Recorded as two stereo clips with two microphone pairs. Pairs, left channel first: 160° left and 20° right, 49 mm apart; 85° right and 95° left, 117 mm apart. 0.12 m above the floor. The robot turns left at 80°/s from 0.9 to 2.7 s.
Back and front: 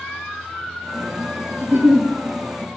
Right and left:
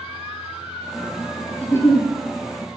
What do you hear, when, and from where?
1.6 s a giggle: 10° right, 0.5 m; by 2.1 s 50° right, 0.5 m